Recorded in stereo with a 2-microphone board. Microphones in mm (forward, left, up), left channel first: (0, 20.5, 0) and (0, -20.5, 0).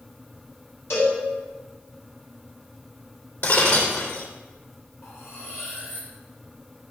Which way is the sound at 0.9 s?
90° left.